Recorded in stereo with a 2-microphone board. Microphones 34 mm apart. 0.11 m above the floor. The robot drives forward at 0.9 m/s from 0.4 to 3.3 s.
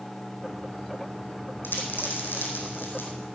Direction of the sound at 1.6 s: 65° left (ahead or behind).